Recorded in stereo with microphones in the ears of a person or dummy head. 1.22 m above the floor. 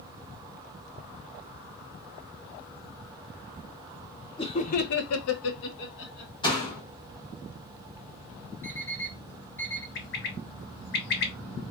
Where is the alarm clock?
5° left (ahead or behind), 1.0 m.